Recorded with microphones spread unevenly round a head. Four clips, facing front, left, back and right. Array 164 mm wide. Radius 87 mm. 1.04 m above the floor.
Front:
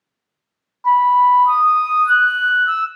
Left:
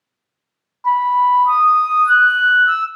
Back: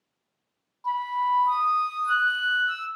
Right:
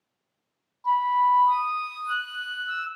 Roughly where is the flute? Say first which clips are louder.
Left 7 dB, front 14 dB; ahead left.